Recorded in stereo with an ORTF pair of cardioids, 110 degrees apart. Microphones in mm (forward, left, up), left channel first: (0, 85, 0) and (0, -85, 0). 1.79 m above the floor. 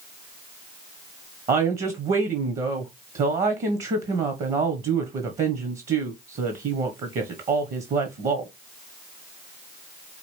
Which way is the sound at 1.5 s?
50° right.